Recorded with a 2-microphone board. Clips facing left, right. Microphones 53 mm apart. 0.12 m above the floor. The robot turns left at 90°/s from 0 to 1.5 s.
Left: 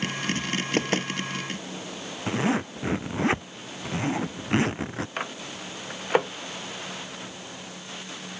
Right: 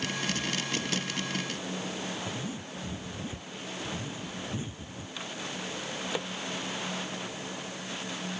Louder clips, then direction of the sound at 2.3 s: Left 11 dB; 80° left.